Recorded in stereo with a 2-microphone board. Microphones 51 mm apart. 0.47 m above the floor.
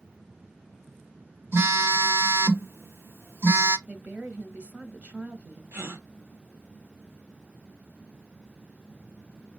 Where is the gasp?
55° right (ahead or behind), 0.7 m.